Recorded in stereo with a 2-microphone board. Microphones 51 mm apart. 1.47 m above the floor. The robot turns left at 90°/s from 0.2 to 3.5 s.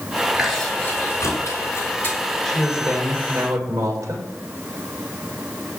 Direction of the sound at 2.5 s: 15° left.